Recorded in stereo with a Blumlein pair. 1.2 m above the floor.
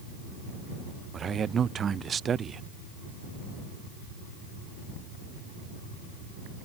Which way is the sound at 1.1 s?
20° right.